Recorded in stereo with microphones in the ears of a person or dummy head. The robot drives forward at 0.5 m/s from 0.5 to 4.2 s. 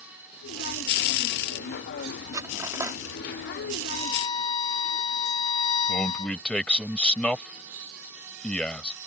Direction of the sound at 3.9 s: 30° left (ahead or behind).